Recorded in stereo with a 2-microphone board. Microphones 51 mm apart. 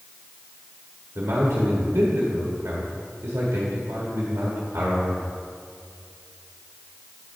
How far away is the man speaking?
About 1.5 m.